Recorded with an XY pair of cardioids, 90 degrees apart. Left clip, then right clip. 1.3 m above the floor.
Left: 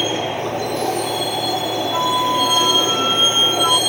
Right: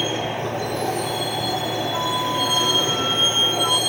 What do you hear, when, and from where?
0.0 s a vehicle: 25° left
1.9 s a flute: 45° left